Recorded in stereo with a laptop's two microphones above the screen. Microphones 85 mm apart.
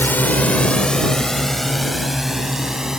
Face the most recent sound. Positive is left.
turn(degrees=-5)  # may be behind; listen again after turning